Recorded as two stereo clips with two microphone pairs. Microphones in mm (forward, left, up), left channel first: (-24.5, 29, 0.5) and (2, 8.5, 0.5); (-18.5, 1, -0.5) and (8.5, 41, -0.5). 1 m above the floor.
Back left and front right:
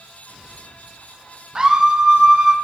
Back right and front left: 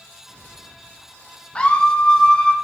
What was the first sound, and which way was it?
A scream, 80° right.